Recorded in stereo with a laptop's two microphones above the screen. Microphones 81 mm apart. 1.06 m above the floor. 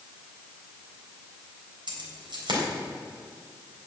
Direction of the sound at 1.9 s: 70° right (ahead or behind).